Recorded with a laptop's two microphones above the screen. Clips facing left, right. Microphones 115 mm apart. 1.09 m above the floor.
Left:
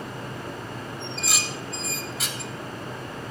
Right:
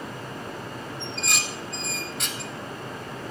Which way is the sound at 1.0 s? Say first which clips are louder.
Right 1 dB; centre (ahead or behind).